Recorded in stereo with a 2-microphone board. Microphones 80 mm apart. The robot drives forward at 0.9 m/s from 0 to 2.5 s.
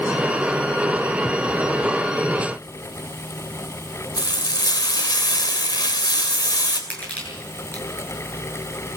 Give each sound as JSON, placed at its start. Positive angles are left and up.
{"t": 4.2, "sound": "frying", "side_deg": 65, "distance_m": 3.0}
{"t": 6.9, "sound": "crushing", "side_deg": 20, "distance_m": 8.5}